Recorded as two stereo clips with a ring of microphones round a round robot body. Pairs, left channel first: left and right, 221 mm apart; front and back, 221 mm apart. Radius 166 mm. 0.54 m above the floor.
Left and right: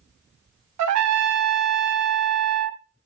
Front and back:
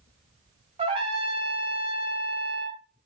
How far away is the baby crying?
No baby crying in this recording.